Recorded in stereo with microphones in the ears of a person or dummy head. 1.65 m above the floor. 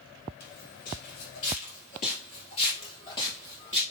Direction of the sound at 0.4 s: 55° left (ahead or behind).